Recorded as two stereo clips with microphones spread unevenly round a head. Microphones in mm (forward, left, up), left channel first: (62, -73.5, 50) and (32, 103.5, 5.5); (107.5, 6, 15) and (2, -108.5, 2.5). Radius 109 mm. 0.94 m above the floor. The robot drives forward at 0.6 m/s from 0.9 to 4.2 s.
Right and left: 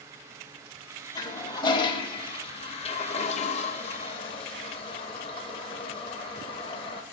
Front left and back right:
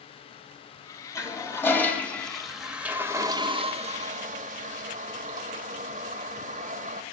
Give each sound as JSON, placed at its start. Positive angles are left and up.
{"t": 1.1, "sound": "a toilet flushing", "azimuth_deg": -20, "distance_m": 1.7}